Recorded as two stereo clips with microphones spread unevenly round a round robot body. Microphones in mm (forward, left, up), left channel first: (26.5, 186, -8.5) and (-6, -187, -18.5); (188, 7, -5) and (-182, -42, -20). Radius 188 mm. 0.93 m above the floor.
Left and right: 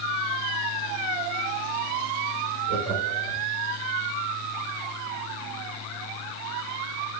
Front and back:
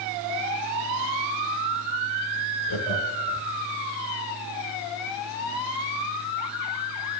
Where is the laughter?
Straight ahead, 4.5 m.